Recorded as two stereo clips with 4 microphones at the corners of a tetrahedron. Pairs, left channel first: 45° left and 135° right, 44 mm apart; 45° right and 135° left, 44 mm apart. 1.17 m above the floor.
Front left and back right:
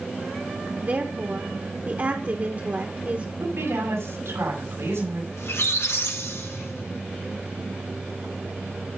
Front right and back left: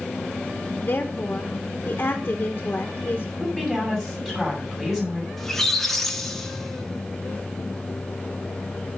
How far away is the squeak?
About 1.3 m.